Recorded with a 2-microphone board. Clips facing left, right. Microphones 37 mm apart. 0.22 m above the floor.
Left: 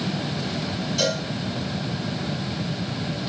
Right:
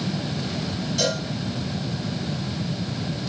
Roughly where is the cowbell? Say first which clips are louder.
Left 1 dB; centre.